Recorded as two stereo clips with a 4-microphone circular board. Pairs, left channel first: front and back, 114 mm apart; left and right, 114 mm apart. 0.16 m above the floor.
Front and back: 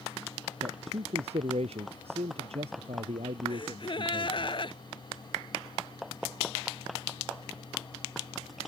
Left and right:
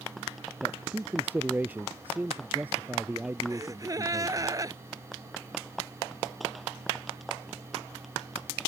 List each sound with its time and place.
0.6 s a man speaking: 165° right
3.5 s a gasp: 35° right